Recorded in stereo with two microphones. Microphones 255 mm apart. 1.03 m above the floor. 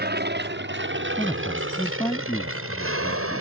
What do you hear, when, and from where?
0.0 s an aircraft: 40° right (ahead or behind); by 3.4 s 60° right (ahead or behind)
1.2 s a man speaking: 15° left (ahead or behind)